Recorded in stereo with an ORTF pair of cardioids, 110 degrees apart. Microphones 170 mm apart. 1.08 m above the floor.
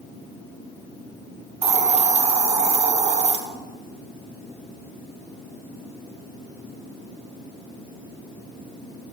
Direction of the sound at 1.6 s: 40° right.